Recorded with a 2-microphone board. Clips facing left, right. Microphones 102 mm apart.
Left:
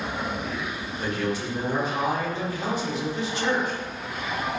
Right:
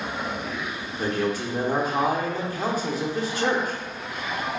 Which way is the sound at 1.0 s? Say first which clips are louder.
Right 3 dB; 45° right (ahead or behind).